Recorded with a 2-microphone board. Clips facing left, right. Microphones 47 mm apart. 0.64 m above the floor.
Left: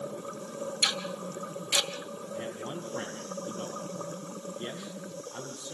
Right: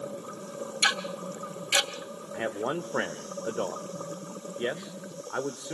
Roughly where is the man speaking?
Right.